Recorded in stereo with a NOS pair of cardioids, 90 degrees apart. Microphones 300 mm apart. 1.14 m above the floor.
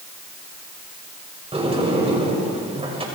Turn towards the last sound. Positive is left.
turn(degrees=-20)